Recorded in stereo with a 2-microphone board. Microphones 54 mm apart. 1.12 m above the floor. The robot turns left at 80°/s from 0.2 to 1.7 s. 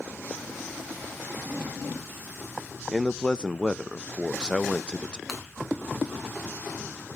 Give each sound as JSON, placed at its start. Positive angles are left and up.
{"t": 2.9, "sound": "a man speaking", "side_deg": 15, "distance_m": 0.7}
{"t": 5.3, "sound": "breaking glass", "side_deg": 0, "distance_m": 4.5}